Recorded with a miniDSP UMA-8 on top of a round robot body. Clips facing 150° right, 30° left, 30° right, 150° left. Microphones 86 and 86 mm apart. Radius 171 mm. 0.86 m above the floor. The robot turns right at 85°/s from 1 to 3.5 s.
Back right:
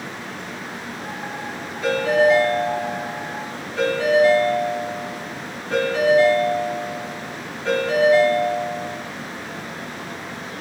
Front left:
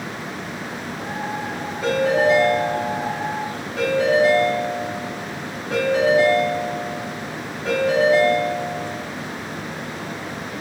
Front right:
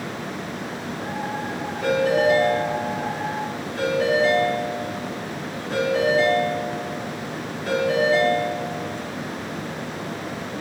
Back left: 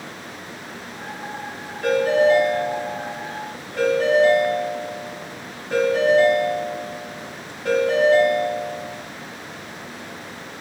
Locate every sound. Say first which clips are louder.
1.8 s a ringtone: back right 1 dB, back left 2 dB; 35° right, 2.0 m; by 9.0 s 110° left, 2.0 m